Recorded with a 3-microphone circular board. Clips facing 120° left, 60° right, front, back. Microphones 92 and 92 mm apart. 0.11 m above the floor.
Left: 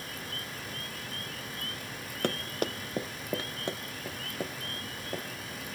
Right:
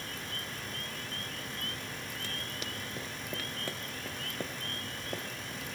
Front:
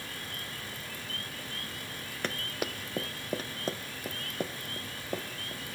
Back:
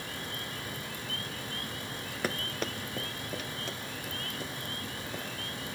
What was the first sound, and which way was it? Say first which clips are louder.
Running footsteps: left 9 dB, back 1 dB; 95° left.